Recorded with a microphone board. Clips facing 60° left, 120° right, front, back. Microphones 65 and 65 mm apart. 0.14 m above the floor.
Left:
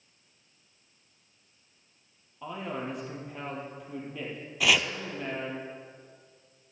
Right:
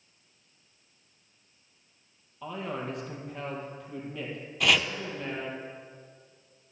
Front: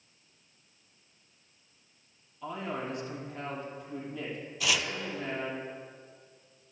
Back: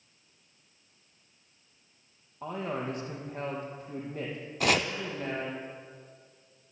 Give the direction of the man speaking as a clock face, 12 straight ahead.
7 o'clock.